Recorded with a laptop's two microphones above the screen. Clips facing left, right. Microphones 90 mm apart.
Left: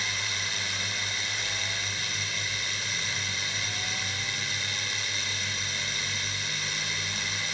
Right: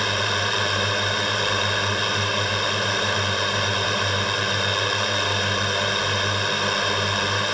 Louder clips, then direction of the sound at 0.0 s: Right 12 dB; 70° right (ahead or behind).